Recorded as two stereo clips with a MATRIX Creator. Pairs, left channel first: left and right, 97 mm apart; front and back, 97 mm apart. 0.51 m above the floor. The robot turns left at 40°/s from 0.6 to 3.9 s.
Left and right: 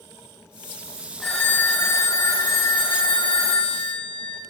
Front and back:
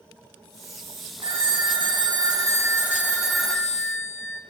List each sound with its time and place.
1.2 s a phone ringing: straight behind, 2.5 m; by 4.4 s 70° left, 2.5 m